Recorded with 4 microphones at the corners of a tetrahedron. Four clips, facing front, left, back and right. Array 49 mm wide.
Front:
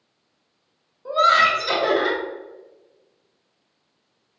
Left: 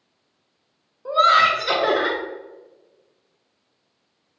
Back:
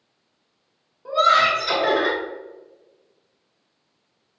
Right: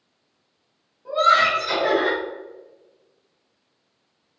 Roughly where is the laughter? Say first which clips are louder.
Left 2 dB, even; left.